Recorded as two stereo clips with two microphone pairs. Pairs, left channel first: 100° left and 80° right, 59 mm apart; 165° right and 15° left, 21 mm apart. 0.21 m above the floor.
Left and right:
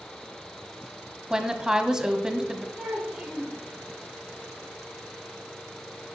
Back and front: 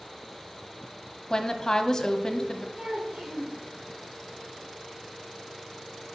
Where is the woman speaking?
145° right, 1.1 m.